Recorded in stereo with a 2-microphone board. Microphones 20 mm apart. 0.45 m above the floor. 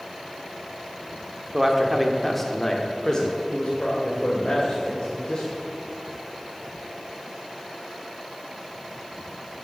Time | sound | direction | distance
1.5 | a man speaking | 10° right (ahead or behind) | 1.1 m